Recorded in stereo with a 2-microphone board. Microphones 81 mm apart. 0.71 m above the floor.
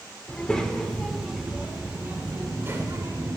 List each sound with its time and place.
0.3 s a child speaking: 15° left (ahead or behind), 1.5 m; by 3.4 s 40° right (ahead or behind), 2 m